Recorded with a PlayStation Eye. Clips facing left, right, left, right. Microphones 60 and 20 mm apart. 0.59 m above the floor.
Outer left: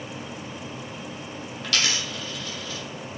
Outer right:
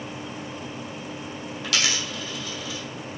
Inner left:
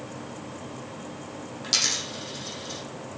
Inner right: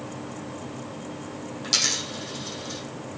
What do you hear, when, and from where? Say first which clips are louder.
1.6 s a dropped coin: even, inner right 1 dB; centre (ahead or behind), 2.0 m